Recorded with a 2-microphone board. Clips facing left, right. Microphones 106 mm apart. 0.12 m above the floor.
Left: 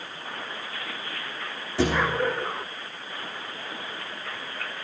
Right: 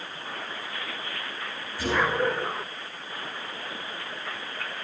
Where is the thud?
70° left (ahead or behind), 3.5 m.